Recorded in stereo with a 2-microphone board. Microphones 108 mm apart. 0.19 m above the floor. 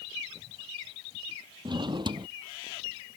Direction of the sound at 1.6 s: 45° right (ahead or behind).